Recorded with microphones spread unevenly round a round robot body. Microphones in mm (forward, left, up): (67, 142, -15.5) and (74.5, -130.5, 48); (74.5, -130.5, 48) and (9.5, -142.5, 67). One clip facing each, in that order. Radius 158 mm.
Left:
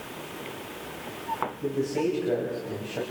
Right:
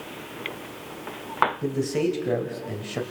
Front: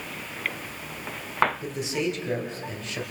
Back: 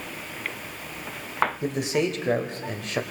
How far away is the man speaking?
About 3 m.